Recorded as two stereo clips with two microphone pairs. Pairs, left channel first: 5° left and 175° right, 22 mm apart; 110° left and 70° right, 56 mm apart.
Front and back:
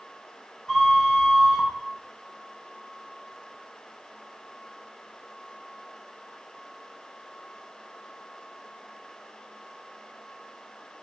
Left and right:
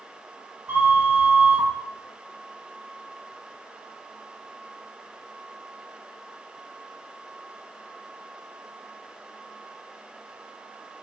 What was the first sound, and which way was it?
A flute, 60° right.